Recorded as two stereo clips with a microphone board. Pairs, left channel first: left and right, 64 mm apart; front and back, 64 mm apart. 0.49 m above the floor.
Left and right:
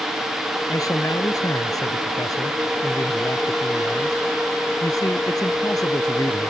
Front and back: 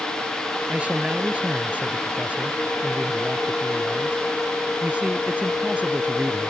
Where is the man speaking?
115° left.